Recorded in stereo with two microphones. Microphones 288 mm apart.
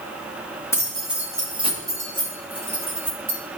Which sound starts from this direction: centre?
Keys jangling, at 0.7 s.